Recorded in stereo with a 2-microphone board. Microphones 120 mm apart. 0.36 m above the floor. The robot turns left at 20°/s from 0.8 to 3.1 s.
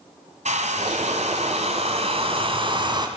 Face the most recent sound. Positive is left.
turn(degrees=-140)